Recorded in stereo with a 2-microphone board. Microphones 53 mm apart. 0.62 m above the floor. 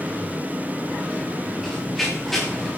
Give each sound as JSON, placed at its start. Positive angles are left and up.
{"t": 1.6, "sound": "running footsteps", "side_deg": 5, "distance_m": 6.5}